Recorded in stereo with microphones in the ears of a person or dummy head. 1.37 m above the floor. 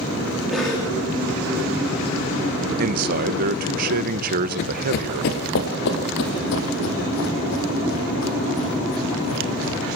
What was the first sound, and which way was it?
A cough, centre (ahead or behind).